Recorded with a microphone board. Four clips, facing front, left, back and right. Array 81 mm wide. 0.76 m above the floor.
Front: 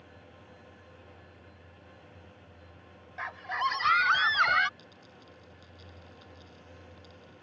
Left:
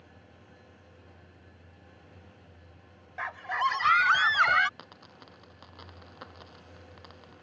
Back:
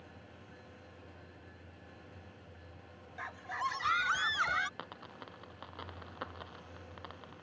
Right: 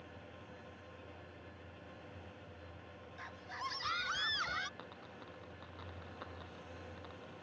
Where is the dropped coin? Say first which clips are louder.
Left 1 dB, back 6 dB; 170° left.